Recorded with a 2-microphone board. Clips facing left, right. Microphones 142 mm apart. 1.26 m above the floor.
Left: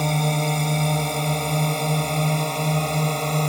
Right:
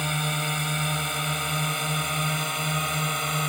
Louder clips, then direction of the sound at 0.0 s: Left 7 dB; 35° left (ahead or behind).